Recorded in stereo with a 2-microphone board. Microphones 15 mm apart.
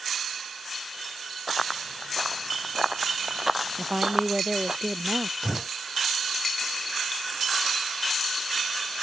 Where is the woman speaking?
40° right (ahead or behind).